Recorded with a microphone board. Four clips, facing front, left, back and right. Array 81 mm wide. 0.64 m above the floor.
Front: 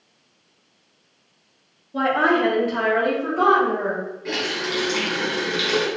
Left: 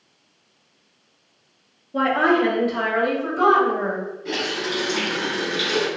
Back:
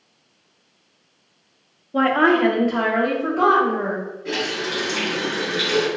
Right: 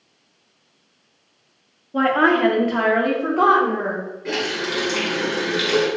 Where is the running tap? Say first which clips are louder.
Right 3 dB, back 2 dB; 60° right, 1.3 m.